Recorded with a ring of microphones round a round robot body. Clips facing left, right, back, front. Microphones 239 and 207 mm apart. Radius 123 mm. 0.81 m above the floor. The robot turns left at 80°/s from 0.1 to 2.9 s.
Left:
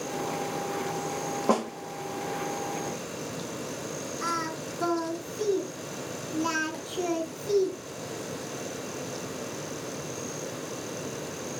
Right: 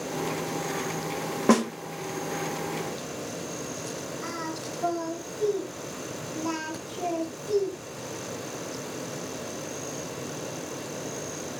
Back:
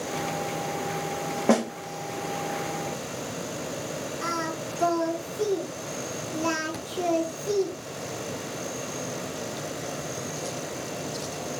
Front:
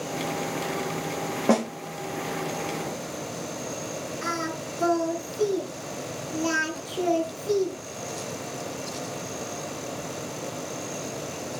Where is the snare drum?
95° right, 0.8 m; by 1.7 s 115° right, 0.8 m.